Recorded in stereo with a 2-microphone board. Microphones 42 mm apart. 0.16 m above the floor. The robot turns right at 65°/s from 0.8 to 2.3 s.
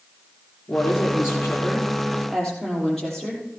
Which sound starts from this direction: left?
A woman speaking, at 0.7 s.